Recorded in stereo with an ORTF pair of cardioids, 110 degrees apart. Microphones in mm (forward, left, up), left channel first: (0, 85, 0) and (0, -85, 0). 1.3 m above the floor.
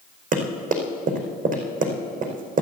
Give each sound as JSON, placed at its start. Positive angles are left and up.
{"t": 0.3, "sound": "running footsteps", "azimuth_deg": -55, "distance_m": 5.0}